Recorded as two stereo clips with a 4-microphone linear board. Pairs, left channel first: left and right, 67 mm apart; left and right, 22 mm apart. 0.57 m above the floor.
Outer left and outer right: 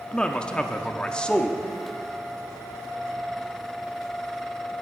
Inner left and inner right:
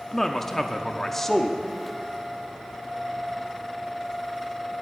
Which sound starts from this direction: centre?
A man speaking, at 0.1 s.